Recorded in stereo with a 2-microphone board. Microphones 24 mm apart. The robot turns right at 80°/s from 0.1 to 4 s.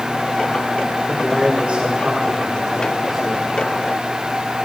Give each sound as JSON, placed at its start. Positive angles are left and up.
{"t": 1.1, "sound": "a man speaking", "azimuth_deg": -175, "distance_m": 6.0}